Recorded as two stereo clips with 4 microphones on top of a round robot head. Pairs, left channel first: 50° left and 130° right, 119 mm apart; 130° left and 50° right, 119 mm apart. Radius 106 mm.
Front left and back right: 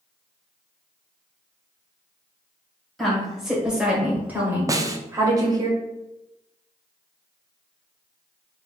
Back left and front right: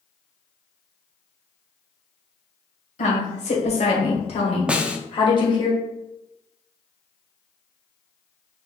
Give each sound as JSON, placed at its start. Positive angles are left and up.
{"t": 3.0, "sound": "a woman speaking", "azimuth_deg": 140, "distance_m": 2.5}
{"t": 4.7, "sound": "a snare drum", "azimuth_deg": -120, "distance_m": 0.6}